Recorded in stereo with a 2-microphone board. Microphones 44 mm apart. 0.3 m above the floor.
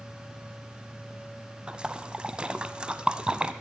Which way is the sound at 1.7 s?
20° right (ahead or behind).